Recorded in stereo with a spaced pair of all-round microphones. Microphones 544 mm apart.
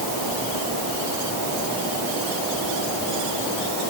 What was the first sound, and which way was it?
Only background noise.